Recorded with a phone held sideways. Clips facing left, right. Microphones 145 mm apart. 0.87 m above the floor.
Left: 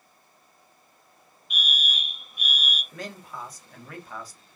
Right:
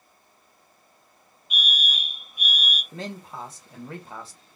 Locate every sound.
1.5 s a fire alarm: 20° right (ahead or behind), 2 m
2.9 s a man speaking: 25° right (ahead or behind), 0.9 m